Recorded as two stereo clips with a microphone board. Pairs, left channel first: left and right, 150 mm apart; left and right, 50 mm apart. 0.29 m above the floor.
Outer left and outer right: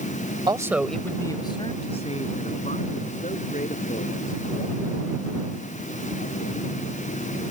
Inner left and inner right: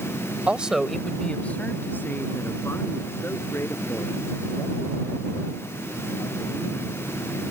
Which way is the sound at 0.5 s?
30° right (ahead or behind).